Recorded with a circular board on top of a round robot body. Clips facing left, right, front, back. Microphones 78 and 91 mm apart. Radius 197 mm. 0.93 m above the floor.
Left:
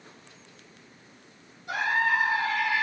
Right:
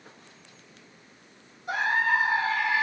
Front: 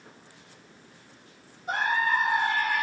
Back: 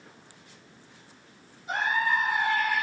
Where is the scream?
40° right, 3 m.